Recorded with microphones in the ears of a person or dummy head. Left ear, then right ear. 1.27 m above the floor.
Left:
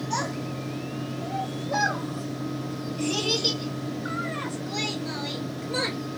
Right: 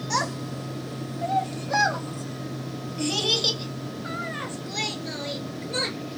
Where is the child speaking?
65° right (ahead or behind), 0.9 m; by 6.0 s 15° right (ahead or behind), 3 m.